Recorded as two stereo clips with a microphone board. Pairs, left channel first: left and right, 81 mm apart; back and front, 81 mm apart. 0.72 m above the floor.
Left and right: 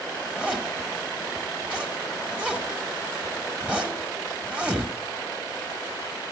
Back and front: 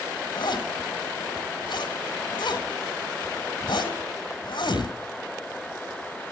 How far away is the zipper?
About 1.8 m.